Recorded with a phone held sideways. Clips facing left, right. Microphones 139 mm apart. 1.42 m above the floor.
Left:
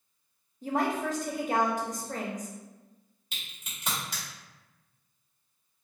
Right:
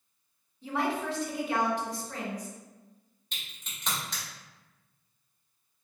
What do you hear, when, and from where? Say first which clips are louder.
0.6 s a woman speaking: left 2 dB; 45° left (ahead or behind), 0.6 m
3.3 s a crack: even; 5° left (ahead or behind), 1.2 m